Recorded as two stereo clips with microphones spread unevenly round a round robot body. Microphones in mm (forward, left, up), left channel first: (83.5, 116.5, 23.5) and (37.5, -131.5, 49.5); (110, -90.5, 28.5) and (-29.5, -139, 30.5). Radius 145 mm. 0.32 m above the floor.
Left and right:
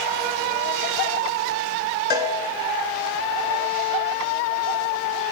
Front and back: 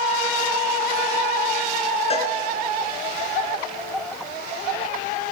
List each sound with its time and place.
2.1 s a cowbell: 25° right, 3 m